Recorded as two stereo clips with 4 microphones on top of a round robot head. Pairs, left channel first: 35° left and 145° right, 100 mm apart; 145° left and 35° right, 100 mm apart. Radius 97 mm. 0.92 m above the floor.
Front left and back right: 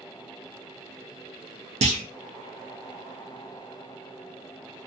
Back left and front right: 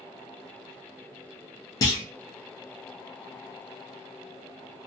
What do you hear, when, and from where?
1.8 s a clunk: 160° right, 0.6 m